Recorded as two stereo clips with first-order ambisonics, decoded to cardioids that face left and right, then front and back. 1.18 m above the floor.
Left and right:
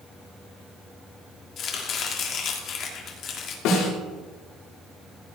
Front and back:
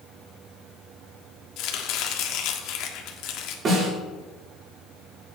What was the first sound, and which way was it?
Chopping, 35° left.